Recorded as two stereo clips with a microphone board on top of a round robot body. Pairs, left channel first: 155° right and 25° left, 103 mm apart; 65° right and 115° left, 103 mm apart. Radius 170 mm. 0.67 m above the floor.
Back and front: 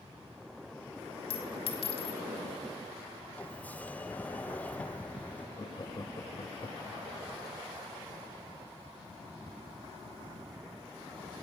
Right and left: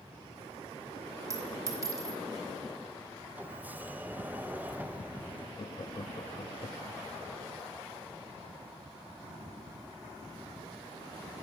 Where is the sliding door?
155° left, 1.1 m.